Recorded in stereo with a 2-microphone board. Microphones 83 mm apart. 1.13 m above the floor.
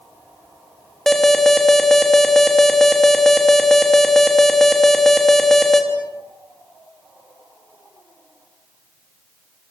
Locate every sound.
1.1 s an alarm: 5° left (ahead or behind), 3 m